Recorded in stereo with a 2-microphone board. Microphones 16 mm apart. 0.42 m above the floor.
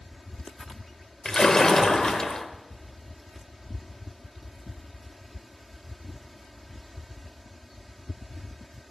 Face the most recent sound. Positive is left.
turn(degrees=50)  # may be behind; listen again after turning